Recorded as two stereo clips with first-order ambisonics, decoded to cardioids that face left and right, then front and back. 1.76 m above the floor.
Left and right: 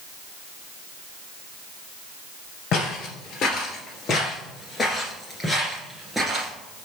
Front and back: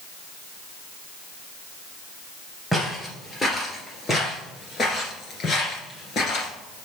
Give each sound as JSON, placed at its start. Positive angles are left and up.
{"t": 2.7, "sound": "footsteps", "azimuth_deg": 75, "distance_m": 2.5}